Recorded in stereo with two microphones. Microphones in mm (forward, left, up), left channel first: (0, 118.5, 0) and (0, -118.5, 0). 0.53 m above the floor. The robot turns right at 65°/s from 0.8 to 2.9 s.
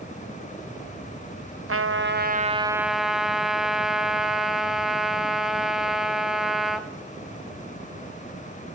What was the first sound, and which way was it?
A trumpet, 80° right.